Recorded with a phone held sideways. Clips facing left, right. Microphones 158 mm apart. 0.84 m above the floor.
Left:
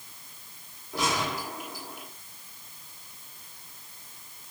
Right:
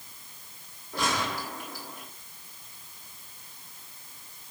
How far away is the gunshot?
About 10 m.